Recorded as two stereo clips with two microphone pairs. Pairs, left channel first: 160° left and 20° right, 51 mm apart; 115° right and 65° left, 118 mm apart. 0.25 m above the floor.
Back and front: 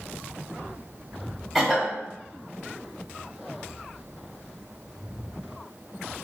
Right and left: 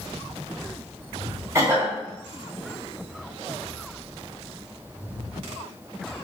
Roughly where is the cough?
Left.